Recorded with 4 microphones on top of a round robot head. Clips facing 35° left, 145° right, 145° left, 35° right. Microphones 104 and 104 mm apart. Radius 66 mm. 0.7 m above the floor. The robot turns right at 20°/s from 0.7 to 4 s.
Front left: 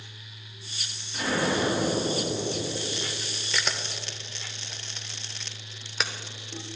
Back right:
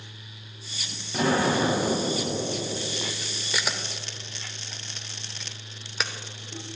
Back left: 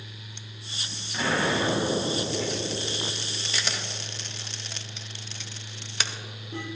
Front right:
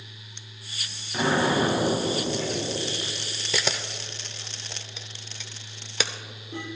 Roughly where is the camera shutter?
Ahead right.